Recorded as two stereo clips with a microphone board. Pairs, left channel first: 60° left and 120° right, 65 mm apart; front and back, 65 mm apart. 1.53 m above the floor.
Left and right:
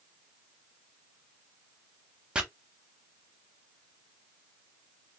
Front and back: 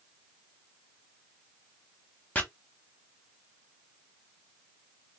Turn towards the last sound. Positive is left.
turn(degrees=-55)